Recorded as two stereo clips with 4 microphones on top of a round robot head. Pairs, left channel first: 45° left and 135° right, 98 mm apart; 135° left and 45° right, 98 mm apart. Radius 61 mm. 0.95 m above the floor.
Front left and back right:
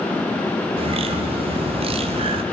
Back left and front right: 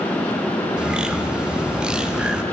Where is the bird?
125° right, 0.9 m.